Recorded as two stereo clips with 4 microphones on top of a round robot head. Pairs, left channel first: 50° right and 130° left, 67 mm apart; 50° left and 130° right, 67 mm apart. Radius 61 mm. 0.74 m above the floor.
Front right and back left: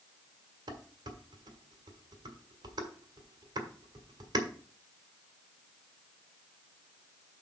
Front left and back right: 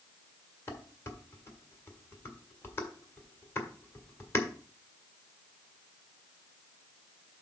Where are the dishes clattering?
105° left, 1.5 m.